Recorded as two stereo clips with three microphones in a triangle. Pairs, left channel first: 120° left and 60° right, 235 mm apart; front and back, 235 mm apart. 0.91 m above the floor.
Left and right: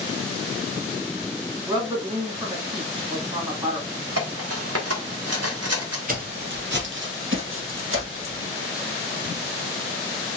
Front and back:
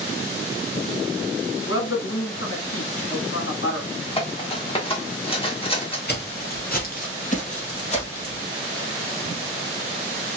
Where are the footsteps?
25° right, 1.3 m; by 8.4 s 60° right, 2 m.